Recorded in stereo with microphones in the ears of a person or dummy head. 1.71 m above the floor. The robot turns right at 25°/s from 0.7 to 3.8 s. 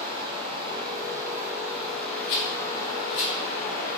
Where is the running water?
30° right, 1.3 m; by 4.0 s 45° left, 1.3 m.